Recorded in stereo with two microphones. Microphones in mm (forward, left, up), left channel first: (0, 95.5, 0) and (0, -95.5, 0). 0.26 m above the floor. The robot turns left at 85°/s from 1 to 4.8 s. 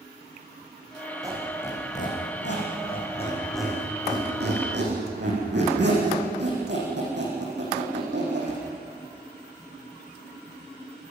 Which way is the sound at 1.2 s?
20° right (ahead or behind).